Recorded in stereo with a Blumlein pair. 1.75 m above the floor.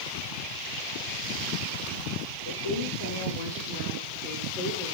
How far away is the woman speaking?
About 5 m.